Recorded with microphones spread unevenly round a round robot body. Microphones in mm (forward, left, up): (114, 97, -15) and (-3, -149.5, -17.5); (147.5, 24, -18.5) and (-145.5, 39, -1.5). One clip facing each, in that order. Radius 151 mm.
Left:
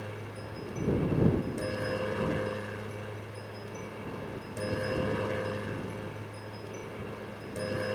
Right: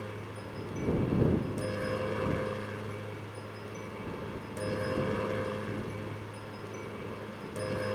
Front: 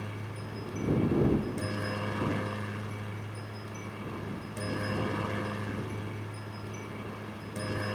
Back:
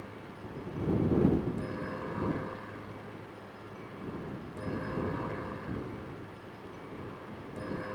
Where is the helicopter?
30° right.